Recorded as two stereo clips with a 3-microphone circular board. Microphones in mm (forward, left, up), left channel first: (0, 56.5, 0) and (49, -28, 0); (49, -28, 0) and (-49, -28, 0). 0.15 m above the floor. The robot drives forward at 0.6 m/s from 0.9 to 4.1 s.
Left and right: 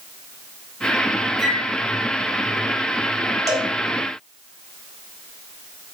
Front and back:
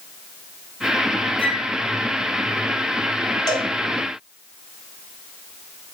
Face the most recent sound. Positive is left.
turn(degrees=-35)